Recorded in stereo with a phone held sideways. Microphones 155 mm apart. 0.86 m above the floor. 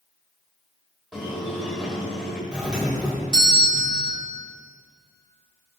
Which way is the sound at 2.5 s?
5° right (ahead or behind).